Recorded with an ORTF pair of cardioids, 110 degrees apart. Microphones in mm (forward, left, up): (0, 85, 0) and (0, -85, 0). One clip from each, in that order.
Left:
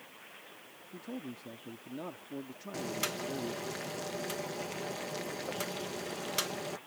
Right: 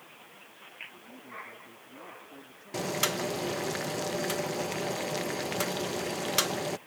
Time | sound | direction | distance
0.9 | a man speaking | 60° left | ?
2.7 | boiling | 35° right | ?